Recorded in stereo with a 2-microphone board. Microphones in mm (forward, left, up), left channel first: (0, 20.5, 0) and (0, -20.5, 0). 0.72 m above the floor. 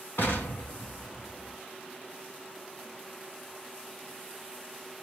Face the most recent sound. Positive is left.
turn(degrees=55)  # may be behind; listen again after turning